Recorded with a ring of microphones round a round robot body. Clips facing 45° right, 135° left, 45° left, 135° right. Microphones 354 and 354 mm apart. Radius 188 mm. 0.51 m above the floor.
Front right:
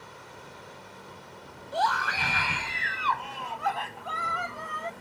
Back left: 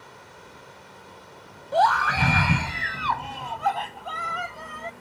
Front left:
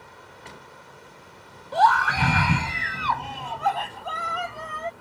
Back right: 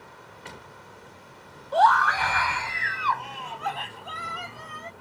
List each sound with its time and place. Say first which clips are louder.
1.7 s a scream: back left 7 dB, even; 105° left; by 4.9 s 80° left